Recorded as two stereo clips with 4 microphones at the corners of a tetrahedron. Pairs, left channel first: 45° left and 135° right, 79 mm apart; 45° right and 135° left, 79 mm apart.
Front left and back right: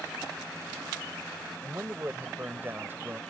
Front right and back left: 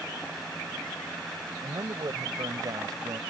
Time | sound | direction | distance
1.6 | a man speaking | 160° left | ?